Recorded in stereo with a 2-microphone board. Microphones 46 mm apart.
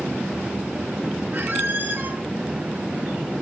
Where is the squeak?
45° right (ahead or behind), 0.7 m.